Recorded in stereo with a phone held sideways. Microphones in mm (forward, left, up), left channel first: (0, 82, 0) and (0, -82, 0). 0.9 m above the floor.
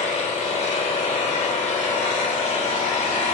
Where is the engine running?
40° left (ahead or behind), 3 m.